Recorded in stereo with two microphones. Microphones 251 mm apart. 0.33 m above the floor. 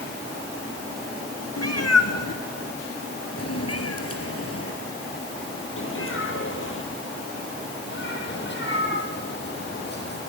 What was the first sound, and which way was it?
A cat meowing, 80° left.